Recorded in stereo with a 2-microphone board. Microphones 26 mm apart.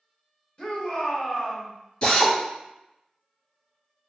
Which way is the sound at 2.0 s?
40° left (ahead or behind).